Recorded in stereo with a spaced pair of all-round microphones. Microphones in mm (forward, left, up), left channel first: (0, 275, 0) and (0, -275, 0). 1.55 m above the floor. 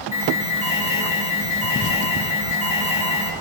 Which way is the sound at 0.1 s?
55° left (ahead or behind).